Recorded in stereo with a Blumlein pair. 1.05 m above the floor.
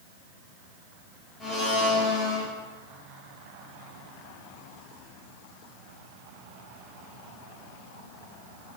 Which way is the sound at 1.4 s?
20° left.